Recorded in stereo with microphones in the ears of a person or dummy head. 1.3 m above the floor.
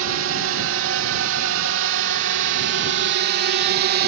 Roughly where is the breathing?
No breathing in this recording.